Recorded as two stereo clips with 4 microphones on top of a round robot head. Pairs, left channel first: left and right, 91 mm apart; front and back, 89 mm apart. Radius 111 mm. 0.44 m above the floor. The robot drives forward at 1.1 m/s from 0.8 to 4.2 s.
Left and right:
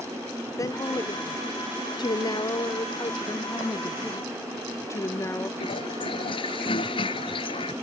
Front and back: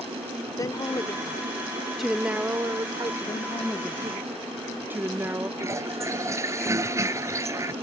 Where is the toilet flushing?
125° left.